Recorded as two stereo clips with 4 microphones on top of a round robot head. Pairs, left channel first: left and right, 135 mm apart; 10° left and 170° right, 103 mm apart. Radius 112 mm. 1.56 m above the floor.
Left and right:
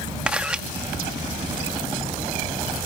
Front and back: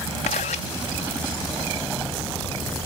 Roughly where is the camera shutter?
Ahead.